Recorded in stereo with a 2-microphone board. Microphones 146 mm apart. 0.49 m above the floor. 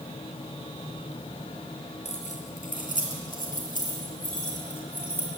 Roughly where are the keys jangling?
Left.